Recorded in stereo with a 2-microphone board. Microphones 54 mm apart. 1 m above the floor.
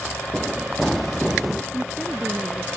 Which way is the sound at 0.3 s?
10° left (ahead or behind).